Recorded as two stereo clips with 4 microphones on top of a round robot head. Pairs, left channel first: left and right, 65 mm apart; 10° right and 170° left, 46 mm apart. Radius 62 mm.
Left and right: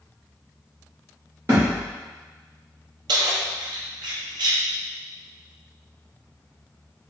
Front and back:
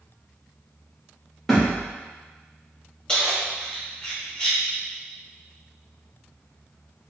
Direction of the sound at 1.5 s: 95° right.